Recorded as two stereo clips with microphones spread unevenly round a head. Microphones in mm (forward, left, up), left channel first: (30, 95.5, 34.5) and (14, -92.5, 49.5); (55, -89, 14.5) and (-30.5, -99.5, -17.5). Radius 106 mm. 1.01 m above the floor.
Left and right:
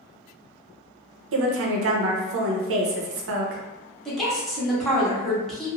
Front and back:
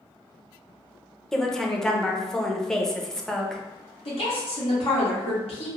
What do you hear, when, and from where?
1.3 s a woman speaking: 85° right, 0.6 m
4.0 s a woman speaking: straight ahead, 1.1 m